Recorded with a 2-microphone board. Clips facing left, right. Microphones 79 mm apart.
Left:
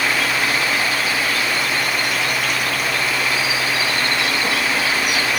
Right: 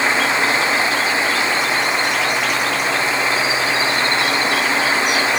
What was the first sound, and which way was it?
Only background noise.